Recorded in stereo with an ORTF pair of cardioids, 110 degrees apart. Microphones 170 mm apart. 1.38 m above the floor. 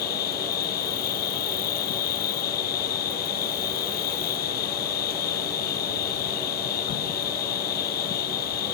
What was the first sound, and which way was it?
An insect, 65° left.